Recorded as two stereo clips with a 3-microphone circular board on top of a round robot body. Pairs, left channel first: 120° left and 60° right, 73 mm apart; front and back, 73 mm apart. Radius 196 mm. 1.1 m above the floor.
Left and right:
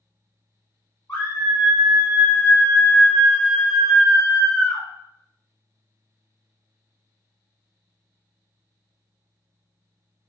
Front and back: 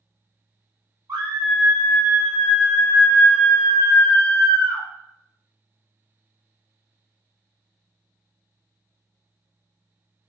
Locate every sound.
1.1 s a scream: 170° left, 0.9 m; by 4.8 s 25° left, 1.3 m